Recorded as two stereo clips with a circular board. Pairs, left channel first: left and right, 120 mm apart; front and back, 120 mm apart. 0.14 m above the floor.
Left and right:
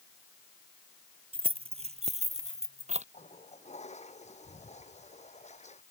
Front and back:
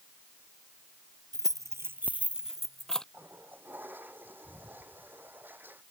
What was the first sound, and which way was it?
Keys jangling, 125° right.